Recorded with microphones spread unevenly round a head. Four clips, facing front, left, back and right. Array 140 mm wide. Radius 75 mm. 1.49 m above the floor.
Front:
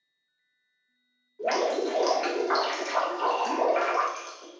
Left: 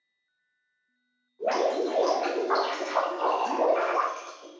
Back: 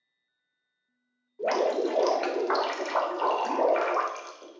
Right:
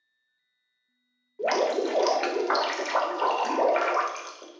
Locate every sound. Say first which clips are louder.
1.4 s dripping: right 1 dB, back 1 dB; 85° right, 0.6 m